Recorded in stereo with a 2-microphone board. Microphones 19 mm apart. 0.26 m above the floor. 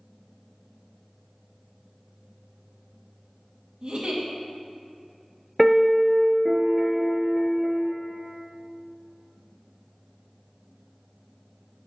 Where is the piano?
5° right (ahead or behind), 0.8 m.